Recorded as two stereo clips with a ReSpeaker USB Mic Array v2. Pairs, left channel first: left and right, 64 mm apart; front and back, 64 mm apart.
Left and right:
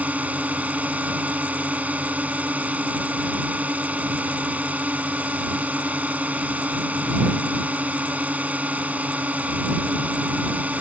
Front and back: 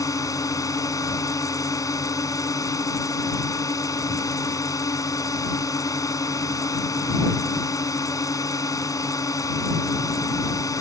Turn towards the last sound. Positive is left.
turn(degrees=-25)